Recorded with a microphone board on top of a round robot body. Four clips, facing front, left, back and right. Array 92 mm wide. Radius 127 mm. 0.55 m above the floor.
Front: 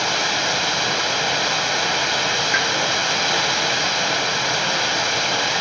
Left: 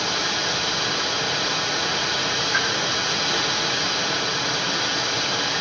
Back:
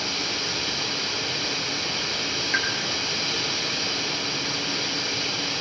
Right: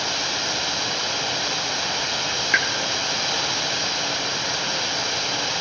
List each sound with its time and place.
0.0 s running water: 5° right, 2 m
2.5 s a pop: 65° right, 1.9 m